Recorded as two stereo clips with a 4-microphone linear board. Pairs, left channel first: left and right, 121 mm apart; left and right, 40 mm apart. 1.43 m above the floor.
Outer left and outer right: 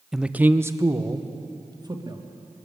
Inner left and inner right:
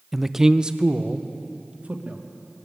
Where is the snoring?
No snoring in this recording.